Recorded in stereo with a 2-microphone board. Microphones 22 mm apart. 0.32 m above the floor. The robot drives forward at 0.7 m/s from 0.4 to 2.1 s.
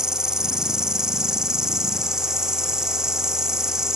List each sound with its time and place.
0.0 s an insect: 25° right (ahead or behind); by 4.0 s 20° right (ahead or behind)